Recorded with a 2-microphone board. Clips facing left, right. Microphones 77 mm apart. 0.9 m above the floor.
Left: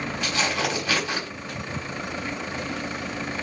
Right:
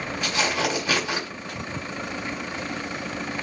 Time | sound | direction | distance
0.2 | tearing paper | 15° right (ahead or behind) | 5.5 m